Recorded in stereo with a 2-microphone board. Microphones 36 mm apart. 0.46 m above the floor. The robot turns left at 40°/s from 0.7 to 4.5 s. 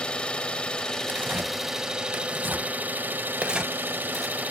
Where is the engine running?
30° left, 1.4 m; by 4.5 s 120° right, 1.4 m.